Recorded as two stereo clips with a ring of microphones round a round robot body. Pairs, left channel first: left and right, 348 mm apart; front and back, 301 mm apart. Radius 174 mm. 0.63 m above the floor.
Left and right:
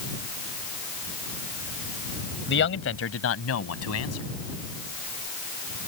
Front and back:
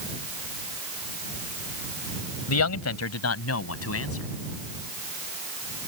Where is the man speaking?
30° left; by 4.3 s 45° left.